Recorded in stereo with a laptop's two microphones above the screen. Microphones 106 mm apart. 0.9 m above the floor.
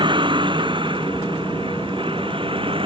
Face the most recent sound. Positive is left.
turn(degrees=-55)  # may be behind; listen again after turning